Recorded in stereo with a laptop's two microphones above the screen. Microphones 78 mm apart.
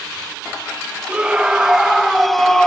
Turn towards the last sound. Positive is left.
turn(degrees=5)  # may be behind; listen again after turning